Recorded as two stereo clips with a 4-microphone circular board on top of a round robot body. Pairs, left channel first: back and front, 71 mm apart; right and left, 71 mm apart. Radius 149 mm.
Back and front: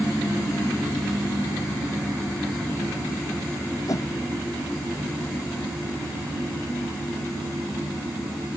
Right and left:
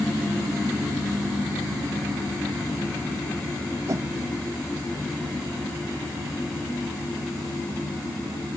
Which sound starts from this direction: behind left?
A whoosh, at 3.9 s.